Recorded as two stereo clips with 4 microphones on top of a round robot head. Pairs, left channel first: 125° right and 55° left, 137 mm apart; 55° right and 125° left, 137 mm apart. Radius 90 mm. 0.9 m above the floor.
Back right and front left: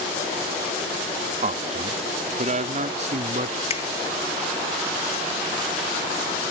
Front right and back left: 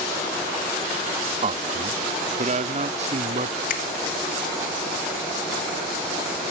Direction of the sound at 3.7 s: 75° right.